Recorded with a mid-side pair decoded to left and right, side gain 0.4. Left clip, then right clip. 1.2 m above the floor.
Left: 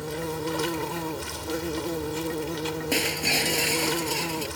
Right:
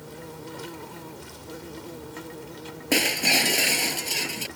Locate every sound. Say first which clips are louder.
0.0 s an insect: left 10 dB; 70° left
2.9 s breaking glass: right 4 dB; 35° right